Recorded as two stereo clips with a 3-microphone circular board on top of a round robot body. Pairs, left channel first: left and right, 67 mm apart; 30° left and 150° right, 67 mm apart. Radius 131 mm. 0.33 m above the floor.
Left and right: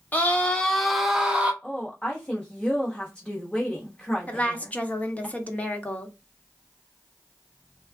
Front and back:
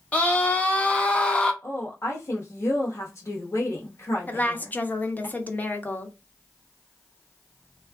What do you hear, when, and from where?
0.1 s a scream: 75° left, 1.0 m; by 1.5 s 35° right, 1.1 m
1.6 s a woman speaking: 20° left, 1.2 m
4.3 s a woman speaking: 50° left, 0.9 m